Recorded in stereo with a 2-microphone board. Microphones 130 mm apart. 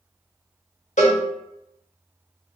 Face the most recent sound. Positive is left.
turn(degrees=65)  # may be behind; listen again after turning